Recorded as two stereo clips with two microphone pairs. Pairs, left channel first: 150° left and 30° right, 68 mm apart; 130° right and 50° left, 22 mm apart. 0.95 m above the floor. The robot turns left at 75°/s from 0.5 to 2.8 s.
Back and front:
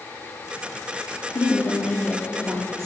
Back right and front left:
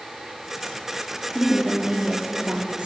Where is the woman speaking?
125° left, 1.6 m; by 2.9 s 15° left, 1.6 m.